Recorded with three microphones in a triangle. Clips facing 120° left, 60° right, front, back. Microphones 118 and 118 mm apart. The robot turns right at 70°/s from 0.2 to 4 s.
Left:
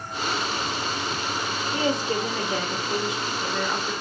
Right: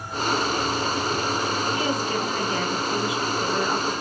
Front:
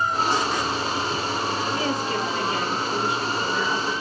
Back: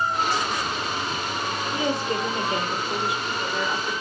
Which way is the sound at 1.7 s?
135° left.